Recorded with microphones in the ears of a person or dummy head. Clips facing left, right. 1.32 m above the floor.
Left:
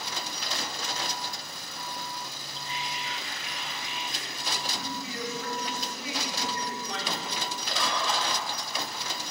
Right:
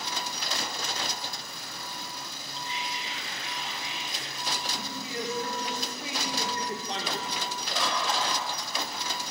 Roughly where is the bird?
Centre.